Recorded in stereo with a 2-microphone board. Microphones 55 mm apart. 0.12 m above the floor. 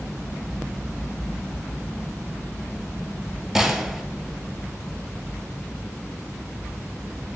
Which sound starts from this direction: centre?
A gunshot, at 3.5 s.